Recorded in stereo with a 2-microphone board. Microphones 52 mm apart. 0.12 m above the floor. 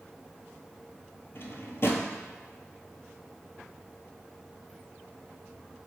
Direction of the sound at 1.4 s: 50° left (ahead or behind).